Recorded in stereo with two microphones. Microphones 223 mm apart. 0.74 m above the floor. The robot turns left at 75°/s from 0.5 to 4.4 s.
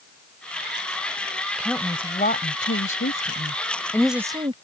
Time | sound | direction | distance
1.6 | a woman speaking | 5° right (ahead or behind) | ?